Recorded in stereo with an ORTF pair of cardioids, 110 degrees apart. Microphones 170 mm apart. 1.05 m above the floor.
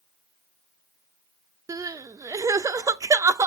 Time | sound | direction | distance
1.7 | crying | 20° right | 0.6 m